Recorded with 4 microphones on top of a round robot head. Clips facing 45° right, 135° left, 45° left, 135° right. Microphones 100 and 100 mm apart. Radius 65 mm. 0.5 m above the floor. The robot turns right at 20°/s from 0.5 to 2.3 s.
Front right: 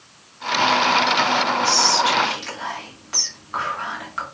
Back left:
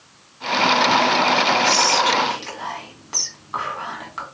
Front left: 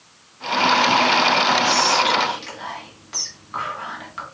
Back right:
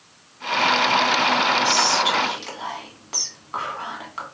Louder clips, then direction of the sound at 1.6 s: Back left 1 dB, front left 2 dB; straight behind.